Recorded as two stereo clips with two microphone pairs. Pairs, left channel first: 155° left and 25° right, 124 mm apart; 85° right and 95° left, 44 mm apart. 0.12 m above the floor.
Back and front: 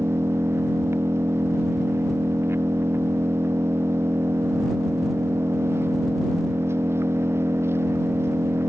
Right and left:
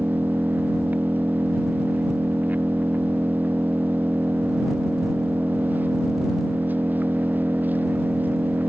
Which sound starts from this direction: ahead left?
An engine running, at 0.0 s.